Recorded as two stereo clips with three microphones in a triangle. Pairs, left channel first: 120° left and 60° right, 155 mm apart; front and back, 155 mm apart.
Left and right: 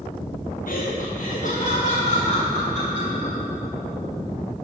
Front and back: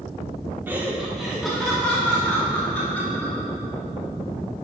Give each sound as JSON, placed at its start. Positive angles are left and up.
{"t": 0.7, "sound": "laughter", "azimuth_deg": 100, "distance_m": 0.9}